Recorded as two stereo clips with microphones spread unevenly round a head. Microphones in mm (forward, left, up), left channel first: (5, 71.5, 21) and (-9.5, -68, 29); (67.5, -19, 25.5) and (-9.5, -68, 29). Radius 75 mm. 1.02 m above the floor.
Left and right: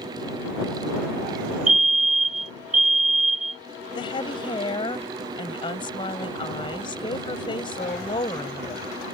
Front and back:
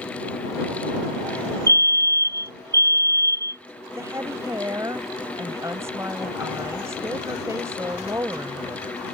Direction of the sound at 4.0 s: 140° left.